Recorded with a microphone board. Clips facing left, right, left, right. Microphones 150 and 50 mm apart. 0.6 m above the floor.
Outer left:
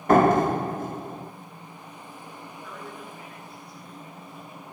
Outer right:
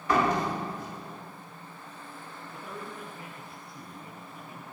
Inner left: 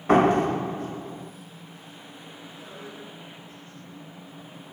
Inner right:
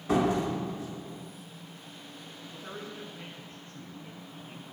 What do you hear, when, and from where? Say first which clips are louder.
0.1 s a door slam: outer left 8 dB, inner left 7 dB; 50° left (ahead or behind), 1.2 m
2.5 s a man speaking: outer right 1 dB, inner right 2 dB; 30° right (ahead or behind), 7 m